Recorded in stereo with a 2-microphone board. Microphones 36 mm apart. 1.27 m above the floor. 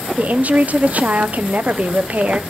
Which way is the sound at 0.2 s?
45° right (ahead or behind).